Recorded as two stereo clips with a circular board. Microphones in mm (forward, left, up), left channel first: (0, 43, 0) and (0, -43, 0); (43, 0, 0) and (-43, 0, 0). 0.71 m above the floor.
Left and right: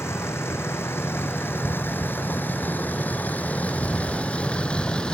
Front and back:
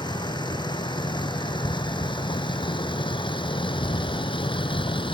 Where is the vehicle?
30° left; by 5.2 s 10° left.